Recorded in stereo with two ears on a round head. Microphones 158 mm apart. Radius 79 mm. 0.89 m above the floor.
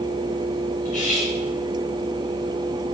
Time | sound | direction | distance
0.8 | cutlery clinking | 45° left (ahead or behind) | 6 m